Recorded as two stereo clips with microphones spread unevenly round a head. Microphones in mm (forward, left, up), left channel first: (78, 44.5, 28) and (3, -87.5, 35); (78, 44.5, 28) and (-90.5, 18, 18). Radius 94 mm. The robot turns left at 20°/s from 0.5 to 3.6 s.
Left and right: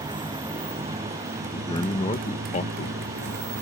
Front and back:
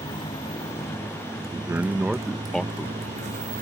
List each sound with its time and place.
0.0 s a motorcycle: 60° right; by 3.6 s 125° right
1.5 s a man speaking: 120° left; by 3.5 s 80° left